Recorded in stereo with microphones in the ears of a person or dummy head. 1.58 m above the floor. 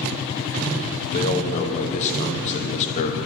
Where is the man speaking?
40° left (ahead or behind), 0.7 m.